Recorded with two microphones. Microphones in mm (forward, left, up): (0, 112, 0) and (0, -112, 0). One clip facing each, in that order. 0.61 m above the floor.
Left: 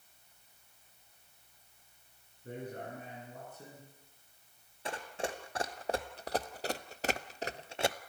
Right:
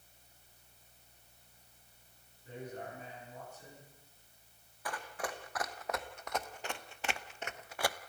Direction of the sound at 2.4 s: 60° left (ahead or behind).